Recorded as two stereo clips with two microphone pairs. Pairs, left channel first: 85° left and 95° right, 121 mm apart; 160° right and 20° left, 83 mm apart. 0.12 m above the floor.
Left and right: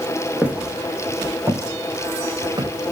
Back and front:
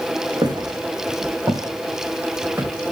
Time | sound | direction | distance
0.4 | footsteps | 15° right | 4.5 m